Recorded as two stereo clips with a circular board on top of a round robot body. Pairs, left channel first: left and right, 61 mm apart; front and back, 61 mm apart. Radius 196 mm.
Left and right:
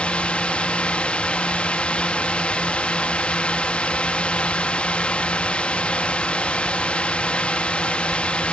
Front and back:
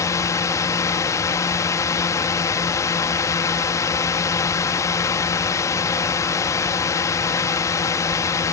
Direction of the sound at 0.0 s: 20° left.